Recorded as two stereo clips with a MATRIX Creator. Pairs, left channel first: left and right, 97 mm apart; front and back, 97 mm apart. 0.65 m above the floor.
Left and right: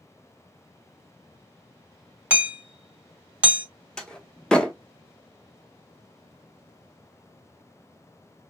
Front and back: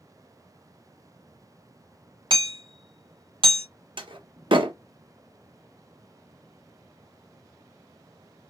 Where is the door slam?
170° left, 0.6 m.